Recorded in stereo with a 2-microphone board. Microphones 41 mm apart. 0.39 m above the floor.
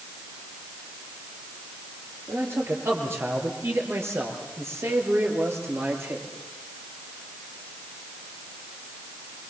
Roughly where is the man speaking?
Right.